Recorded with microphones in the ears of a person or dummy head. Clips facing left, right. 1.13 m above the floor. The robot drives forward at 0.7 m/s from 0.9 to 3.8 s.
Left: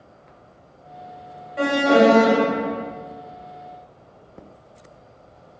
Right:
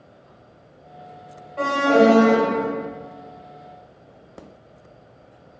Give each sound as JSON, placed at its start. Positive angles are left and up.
{"t": 1.6, "sound": "an alarm", "side_deg": 15, "distance_m": 1.5}